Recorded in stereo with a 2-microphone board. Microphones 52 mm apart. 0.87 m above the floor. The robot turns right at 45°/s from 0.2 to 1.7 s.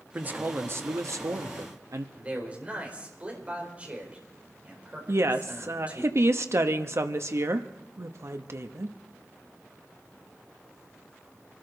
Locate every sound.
0.1 s a man speaking: 150° right, 0.9 m; by 2.0 s 80° right, 0.9 m
2.1 s a man speaking: 25° right (ahead or behind), 4 m
5.1 s a woman speaking: 55° right (ahead or behind), 1.0 m